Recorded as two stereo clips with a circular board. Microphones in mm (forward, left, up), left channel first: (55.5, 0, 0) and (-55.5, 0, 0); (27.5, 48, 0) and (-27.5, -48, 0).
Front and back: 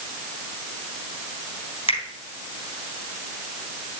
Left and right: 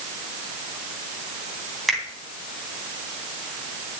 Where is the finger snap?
30° right, 3.5 m.